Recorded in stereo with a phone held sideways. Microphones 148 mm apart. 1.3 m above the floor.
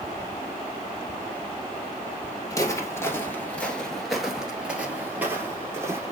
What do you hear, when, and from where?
2.5 s footsteps: 20° left (ahead or behind), 1.4 m; by 6.1 s 20° right (ahead or behind), 2.0 m